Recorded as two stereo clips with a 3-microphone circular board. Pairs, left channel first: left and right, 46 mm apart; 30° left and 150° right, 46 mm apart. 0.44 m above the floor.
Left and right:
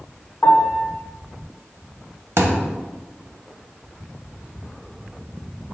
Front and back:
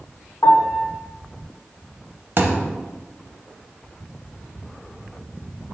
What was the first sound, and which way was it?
A piano, 45° left.